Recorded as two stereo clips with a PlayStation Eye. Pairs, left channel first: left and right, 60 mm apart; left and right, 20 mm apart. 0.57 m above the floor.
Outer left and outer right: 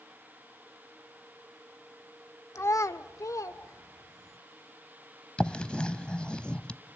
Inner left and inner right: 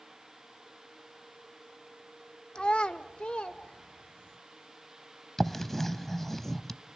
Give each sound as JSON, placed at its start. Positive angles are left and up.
{"t": 2.5, "sound": "a child speaking", "side_deg": 55, "distance_m": 1.0}
{"t": 5.4, "sound": "writing", "side_deg": 15, "distance_m": 0.7}